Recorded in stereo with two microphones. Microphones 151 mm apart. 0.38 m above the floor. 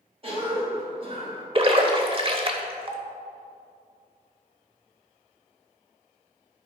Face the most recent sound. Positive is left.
turn(degrees=-40)  # may be behind; listen again after turning